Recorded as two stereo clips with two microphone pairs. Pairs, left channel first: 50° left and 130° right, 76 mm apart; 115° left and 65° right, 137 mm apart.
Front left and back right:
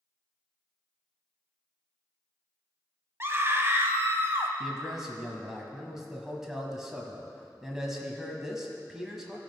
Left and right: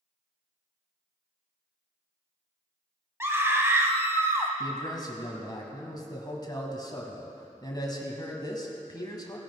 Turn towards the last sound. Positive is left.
turn(degrees=150)